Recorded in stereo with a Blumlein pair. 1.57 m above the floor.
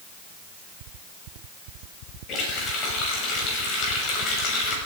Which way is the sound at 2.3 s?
35° left.